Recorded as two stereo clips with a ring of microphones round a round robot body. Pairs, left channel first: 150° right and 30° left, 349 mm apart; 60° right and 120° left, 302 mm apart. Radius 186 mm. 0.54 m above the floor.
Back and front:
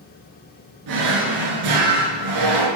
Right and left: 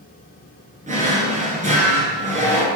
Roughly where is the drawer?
Ahead left.